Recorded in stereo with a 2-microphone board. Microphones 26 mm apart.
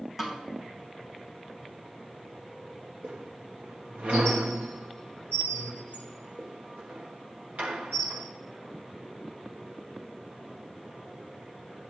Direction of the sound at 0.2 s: 5° right (ahead or behind).